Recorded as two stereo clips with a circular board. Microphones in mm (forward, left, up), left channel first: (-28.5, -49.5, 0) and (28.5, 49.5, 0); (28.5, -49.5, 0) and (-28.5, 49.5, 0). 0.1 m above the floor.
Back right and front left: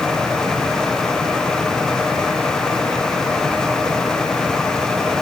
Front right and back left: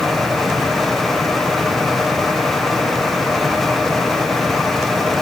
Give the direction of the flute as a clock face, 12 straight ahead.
I don't hear a flute.